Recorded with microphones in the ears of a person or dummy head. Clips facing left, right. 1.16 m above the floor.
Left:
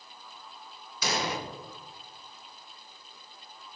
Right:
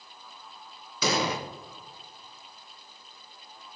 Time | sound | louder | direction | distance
1.0 | an explosion | right 4 dB | 65° right (ahead or behind) | 0.7 m